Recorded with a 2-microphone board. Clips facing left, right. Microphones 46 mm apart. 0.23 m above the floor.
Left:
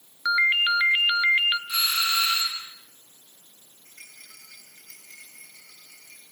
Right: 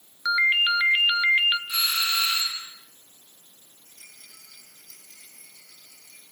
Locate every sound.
0.2 s a ringtone: 10° left (ahead or behind), 1.2 m
1.7 s a doorbell: 10° left (ahead or behind), 4 m
3.9 s a rattle: 60° left (ahead or behind), 9 m